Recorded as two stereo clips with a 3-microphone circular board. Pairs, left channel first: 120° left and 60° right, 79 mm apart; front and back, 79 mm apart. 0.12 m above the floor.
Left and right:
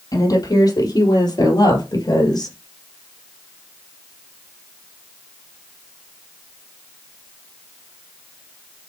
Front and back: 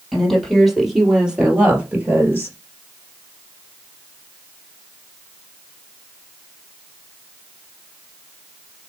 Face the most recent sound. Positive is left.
turn(degrees=120)